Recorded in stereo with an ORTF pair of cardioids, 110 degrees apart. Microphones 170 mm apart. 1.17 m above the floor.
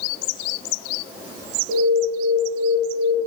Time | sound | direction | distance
1.7 | an alarm | 65° right | 1.0 m